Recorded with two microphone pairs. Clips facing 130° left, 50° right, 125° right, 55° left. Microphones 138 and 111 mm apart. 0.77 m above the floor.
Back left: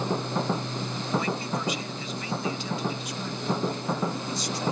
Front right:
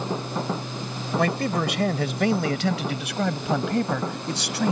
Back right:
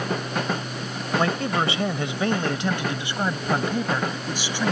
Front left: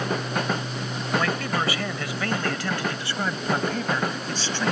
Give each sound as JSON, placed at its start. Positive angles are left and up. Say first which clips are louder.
{"t": 1.2, "sound": "a man speaking", "louder": "front right 6 dB, back right 5 dB", "azimuth_deg": -65}